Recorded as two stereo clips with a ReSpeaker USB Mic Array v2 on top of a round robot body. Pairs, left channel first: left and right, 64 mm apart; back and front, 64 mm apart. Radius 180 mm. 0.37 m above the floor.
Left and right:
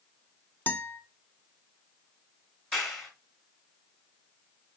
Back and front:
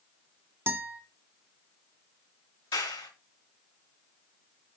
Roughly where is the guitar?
Ahead left.